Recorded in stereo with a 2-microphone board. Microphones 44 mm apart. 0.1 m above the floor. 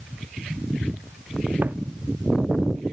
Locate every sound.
1.6 s footsteps: 50° right (ahead or behind), 0.6 m